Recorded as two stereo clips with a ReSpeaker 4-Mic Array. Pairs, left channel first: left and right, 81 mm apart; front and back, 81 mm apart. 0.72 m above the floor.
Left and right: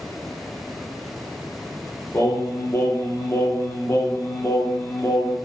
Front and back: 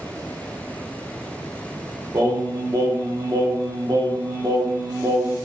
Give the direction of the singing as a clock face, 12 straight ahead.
7 o'clock.